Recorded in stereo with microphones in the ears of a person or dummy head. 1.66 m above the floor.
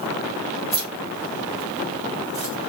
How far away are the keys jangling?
About 1.4 m.